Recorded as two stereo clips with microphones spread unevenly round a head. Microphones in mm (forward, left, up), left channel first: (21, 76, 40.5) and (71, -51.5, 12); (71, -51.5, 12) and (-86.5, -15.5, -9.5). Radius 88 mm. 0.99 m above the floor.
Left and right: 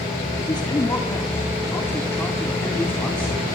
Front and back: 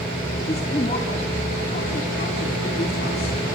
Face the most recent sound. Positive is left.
turn(degrees=30)